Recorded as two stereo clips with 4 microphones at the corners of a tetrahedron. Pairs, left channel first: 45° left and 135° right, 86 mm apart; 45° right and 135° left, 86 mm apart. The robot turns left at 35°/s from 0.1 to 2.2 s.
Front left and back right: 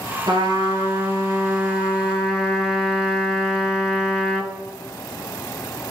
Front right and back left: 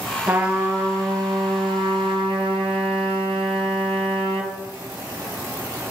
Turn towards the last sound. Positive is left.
turn(degrees=145)